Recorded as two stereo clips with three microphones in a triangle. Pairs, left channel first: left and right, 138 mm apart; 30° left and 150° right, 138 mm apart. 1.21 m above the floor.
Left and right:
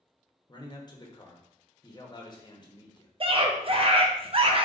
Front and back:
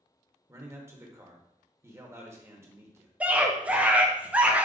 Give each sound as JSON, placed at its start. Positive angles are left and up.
{"t": 0.5, "sound": "a man speaking", "azimuth_deg": 145, "distance_m": 0.9}
{"t": 3.2, "sound": "a scream", "azimuth_deg": -75, "distance_m": 0.7}